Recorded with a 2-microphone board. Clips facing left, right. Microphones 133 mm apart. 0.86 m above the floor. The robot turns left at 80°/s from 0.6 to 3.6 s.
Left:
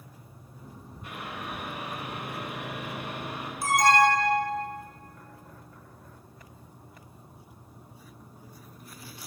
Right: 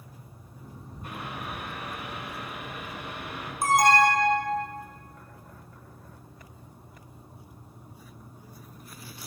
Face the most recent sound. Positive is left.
turn(degrees=-50)  # may be behind; listen again after turning